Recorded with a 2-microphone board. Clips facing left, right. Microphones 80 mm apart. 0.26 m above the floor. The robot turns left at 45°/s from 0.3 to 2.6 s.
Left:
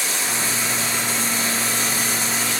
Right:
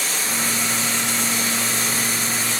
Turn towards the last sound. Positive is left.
turn(degrees=-150)